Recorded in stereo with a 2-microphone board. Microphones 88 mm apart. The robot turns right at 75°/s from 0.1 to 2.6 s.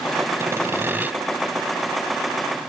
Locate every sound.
0.4 s sawing: 30° right (ahead or behind), 1.0 m; by 1.1 s 20° right (ahead or behind), 1.0 m